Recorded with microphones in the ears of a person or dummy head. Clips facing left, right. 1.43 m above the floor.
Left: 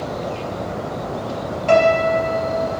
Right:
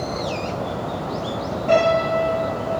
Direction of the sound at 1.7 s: 75° left (ahead or behind).